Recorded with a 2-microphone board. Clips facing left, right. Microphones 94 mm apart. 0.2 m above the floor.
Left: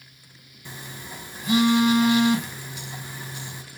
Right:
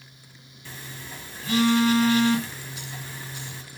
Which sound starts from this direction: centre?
A phone buzzing, at 0.7 s.